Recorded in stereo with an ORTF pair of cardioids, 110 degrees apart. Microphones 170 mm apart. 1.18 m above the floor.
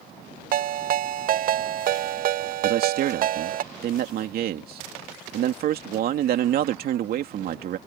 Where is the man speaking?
65° right.